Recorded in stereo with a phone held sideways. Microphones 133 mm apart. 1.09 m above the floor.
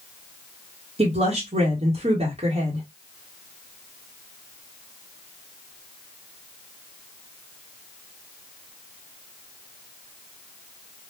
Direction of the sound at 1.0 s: 50° right (ahead or behind).